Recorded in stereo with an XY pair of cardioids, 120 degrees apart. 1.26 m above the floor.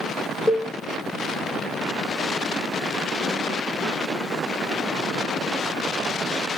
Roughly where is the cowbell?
Ahead.